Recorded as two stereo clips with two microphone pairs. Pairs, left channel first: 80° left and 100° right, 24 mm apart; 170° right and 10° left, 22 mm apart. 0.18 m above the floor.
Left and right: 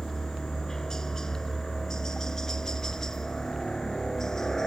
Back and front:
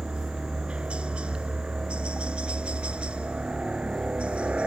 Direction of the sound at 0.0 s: 15° left.